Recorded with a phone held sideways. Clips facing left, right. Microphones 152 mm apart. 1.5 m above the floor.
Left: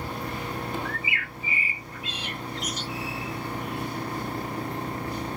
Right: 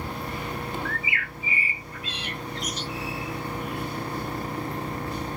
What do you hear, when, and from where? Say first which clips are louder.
0.8 s a bird: right 1 dB; 10° left (ahead or behind), 1.2 m